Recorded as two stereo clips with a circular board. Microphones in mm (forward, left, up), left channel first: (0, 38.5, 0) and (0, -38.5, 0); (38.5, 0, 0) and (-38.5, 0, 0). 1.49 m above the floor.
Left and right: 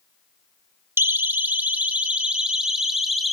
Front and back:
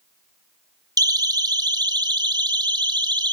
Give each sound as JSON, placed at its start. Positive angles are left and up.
{"t": 1.0, "sound": "a siren", "azimuth_deg": -150, "distance_m": 2.0}